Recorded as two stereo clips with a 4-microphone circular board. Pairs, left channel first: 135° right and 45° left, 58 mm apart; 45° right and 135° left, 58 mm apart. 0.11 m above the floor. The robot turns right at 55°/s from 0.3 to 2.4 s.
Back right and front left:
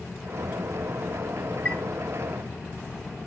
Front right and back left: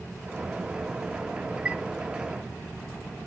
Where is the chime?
175° right, 0.6 m; by 1.8 s 165° right, 0.6 m.